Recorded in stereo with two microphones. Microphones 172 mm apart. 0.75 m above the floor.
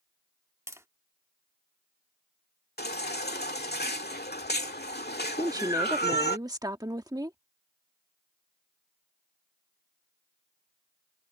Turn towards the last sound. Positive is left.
turn(degrees=-20)  # may be behind; listen again after turning